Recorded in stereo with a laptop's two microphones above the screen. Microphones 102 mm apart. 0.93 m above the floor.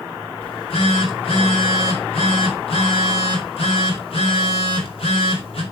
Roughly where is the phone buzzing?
Left.